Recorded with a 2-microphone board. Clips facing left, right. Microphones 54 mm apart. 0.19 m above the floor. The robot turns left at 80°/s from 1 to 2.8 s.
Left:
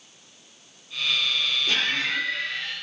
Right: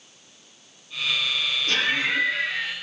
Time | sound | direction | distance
1.7 | laughter | 10° left | 4 m